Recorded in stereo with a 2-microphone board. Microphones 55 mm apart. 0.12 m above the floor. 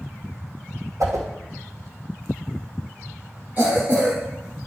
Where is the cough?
30° right (ahead or behind), 2.5 m.